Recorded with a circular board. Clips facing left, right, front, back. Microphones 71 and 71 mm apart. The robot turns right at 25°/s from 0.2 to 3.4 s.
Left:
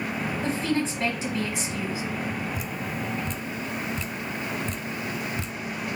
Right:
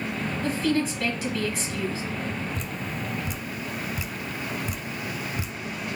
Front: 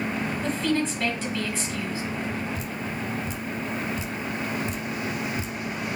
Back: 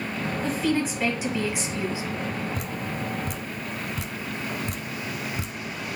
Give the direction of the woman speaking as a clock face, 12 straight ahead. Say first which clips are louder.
Right 2 dB, back 1 dB; 9 o'clock.